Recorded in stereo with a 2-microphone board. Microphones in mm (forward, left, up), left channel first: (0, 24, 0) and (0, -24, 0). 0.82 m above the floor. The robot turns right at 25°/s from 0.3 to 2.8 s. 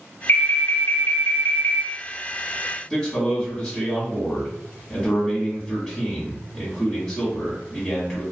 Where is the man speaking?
20° left (ahead or behind), 1.3 m.